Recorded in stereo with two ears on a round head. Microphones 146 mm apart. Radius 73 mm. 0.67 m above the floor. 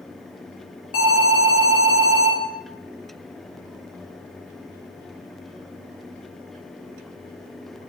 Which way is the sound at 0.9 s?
55° left (ahead or behind).